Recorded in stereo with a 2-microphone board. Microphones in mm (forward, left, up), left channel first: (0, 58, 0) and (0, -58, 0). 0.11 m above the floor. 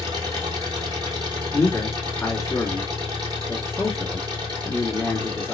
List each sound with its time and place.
0.0 s an engine running: 35° right (ahead or behind), 2 m
1.5 s a man speaking: 20° left (ahead or behind), 1.8 m